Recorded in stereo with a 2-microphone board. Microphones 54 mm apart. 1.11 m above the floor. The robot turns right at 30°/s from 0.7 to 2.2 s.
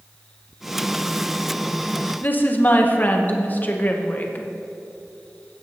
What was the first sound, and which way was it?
A woman speaking, 40° left (ahead or behind).